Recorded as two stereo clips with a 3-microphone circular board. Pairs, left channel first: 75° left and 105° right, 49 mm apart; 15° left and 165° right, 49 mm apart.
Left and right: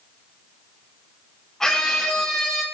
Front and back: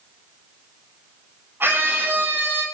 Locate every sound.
1.6 s a scream: 155° left, 8.5 m